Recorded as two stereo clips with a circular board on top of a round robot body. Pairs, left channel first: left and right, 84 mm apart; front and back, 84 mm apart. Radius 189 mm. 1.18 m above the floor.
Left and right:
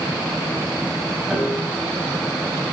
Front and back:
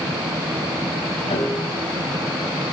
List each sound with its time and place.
1.3 s a piano: 5° right, 2.5 m